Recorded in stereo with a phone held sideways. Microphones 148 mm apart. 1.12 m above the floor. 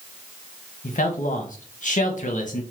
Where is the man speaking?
60° left (ahead or behind), 0.6 m.